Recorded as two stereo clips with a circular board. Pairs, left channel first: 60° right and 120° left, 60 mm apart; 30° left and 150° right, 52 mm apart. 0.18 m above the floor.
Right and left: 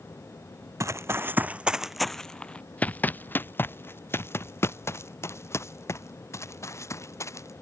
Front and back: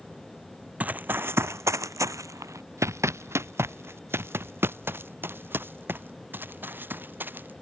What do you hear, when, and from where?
0.8 s running footsteps: 150° left; by 7.5 s 100° right